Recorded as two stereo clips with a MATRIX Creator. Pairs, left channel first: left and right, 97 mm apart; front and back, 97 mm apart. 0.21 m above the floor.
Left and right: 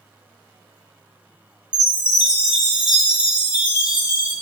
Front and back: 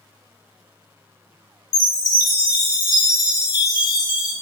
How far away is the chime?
About 0.8 m.